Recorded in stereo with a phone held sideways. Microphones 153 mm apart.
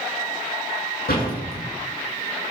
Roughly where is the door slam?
Left.